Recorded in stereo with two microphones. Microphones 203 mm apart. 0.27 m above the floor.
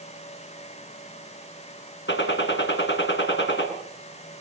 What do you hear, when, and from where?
2.1 s a gunshot: 65° left (ahead or behind), 3.5 m